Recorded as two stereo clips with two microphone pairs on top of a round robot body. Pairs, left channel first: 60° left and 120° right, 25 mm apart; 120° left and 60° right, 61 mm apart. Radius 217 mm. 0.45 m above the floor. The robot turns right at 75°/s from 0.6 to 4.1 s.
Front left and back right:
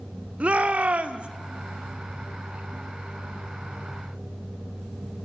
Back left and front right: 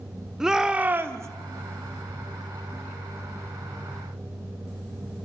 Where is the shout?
135° right, 1.9 m; by 1.3 s 85° right, 1.9 m.